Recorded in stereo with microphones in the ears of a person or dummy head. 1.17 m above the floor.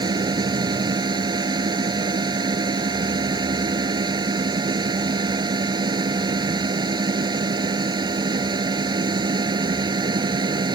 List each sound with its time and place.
0.0 s a machine running: 20° right (ahead or behind)